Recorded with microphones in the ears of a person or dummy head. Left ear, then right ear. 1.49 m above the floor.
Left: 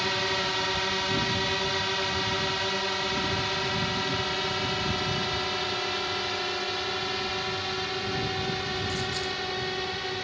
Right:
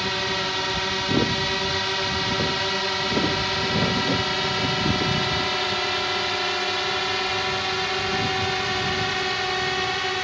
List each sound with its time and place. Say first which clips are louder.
0.0 s a drone: right 2 dB; 5° left (ahead or behind); by 10.2 s 30° right (ahead or behind)